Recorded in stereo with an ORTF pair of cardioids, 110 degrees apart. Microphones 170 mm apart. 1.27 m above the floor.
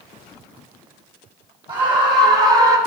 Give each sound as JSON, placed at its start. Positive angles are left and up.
{"t": 1.7, "sound": "a scream", "azimuth_deg": -25, "distance_m": 1.9}